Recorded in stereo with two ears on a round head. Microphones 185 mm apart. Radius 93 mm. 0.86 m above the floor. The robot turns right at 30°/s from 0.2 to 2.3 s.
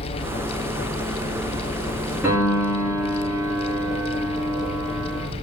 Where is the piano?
10° right (ahead or behind), 6.5 m.